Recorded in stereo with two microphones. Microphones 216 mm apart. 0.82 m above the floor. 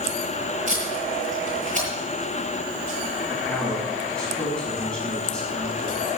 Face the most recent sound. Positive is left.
turn(degrees=5)  # may be behind; listen again after turning